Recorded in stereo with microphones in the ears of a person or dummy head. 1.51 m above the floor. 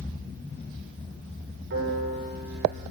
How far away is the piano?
About 8 m.